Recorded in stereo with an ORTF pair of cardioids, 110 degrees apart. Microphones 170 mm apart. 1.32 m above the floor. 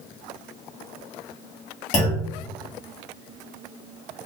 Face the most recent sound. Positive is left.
turn(degrees=45)